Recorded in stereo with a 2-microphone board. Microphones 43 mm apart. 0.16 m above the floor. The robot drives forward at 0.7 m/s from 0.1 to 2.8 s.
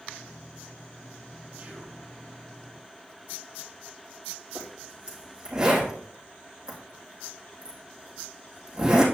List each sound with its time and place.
1.6 s whispering: 35° right (ahead or behind), 2.5 m; by 2.0 s 30° right (ahead or behind), 2.5 m
4.5 s a zipper: 15° right (ahead or behind), 5 m